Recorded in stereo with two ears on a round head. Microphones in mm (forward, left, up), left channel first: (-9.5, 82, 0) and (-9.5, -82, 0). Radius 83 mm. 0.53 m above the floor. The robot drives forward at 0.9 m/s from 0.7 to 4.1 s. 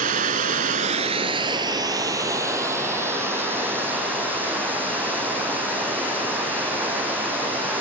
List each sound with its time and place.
0.0 s running water: 45° right (ahead or behind), 0.9 m; by 7.8 s 10° right (ahead or behind), 3.5 m